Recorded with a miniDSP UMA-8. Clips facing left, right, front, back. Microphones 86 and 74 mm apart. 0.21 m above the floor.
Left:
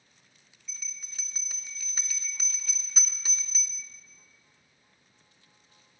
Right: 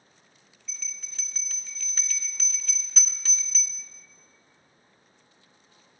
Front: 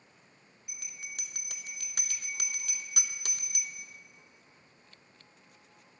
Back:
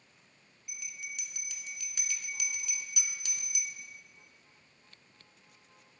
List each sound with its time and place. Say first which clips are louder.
0.7 s a bell: right 2 dB, back 2 dB; 15° left, 0.5 m